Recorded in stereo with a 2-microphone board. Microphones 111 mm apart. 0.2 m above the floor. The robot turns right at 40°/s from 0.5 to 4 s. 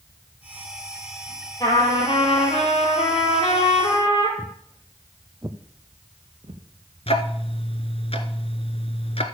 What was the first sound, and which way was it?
A trumpet, 35° left.